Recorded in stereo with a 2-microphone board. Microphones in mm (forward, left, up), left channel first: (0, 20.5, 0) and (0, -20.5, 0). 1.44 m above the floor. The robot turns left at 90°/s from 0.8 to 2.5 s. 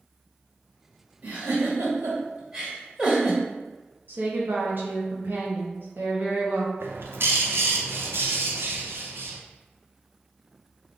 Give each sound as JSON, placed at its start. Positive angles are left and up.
{"t": 1.2, "sound": "a giggle", "side_deg": -50, "distance_m": 1.7}
{"t": 4.1, "sound": "a woman speaking", "side_deg": -60, "distance_m": 0.7}
{"t": 6.8, "sound": "a bird", "side_deg": -75, "distance_m": 0.5}